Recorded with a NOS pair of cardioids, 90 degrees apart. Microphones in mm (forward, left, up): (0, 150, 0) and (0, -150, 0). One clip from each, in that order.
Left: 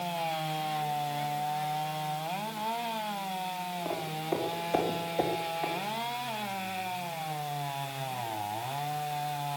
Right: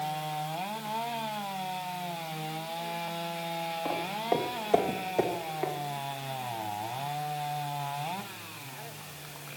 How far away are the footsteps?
About 5 m.